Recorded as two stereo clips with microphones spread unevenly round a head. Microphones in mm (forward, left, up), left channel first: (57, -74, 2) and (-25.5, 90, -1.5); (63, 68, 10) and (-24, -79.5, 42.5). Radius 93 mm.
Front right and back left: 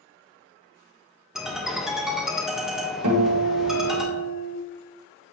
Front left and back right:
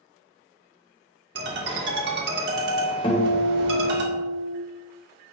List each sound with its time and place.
1.4 s a ringtone: 155° right, 1.8 m
3.0 s a guitar: 125° left, 2.5 m